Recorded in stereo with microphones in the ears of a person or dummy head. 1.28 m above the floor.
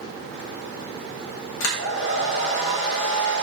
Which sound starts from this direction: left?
A hair dryer, at 1.6 s.